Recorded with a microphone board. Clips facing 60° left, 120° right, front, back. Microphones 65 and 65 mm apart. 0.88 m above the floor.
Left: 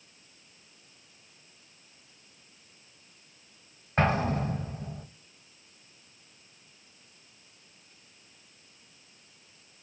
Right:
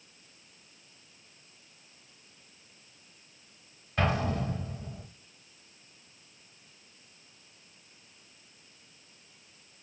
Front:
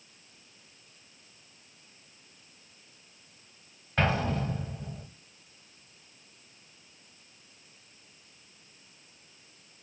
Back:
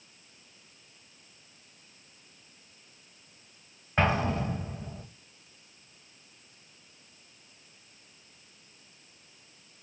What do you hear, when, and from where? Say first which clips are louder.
4.0 s an explosion: left 3 dB, back 1 dB; 110° left, 0.8 m